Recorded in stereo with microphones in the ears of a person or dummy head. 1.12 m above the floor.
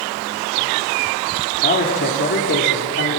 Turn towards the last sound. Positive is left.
turn(degrees=50)  # may be behind; listen again after turning